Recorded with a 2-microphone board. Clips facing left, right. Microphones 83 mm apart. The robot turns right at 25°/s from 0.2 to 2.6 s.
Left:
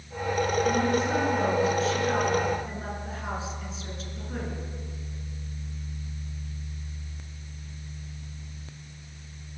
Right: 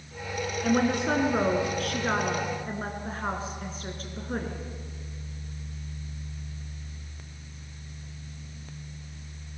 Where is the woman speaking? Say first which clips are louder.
Even; 100° right, 4 m; by 4.5 s 50° right, 4 m.